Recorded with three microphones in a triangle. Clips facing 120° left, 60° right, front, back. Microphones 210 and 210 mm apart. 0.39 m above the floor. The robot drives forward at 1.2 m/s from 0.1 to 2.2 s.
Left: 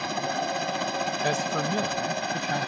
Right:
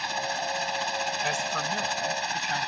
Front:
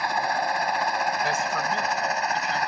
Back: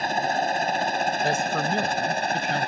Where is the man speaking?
135° left; by 2.7 s 160° left.